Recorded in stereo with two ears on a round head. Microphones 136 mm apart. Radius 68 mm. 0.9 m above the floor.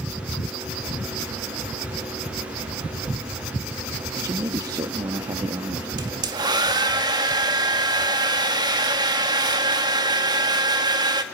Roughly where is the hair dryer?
Right.